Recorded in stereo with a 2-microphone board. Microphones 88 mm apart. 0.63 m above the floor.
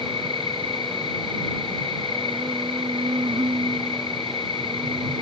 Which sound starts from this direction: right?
An insect, at 0.0 s.